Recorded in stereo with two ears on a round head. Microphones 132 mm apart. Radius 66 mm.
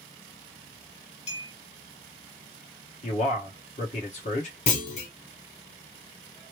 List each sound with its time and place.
1.3 s a clink: 45° left (ahead or behind), 1.4 m
3.0 s a man speaking: 50° left (ahead or behind), 1.1 m
4.7 s a clunk: 50° left (ahead or behind), 1.0 m